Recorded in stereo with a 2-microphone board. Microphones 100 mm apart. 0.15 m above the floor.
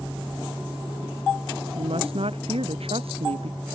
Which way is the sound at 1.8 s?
75° right (ahead or behind).